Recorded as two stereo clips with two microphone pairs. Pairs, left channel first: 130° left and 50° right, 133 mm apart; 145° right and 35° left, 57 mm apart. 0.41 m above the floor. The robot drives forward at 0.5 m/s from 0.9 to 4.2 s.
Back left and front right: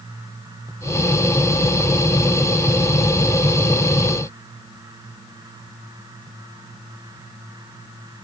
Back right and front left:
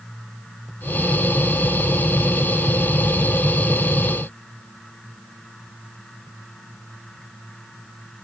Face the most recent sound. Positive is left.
No sound to turn to.